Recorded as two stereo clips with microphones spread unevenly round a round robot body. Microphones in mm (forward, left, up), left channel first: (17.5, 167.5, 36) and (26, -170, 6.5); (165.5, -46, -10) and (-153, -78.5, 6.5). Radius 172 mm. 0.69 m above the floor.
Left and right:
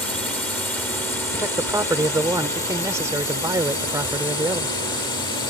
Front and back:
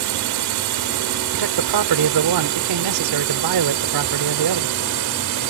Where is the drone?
Straight behind; by 5.5 s 170° left.